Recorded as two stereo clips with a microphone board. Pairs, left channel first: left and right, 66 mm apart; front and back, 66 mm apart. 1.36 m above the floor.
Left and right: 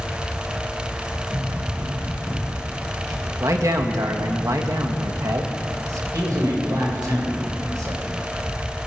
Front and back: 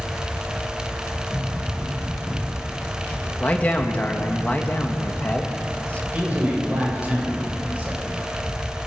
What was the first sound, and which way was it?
Running footsteps, 65° right.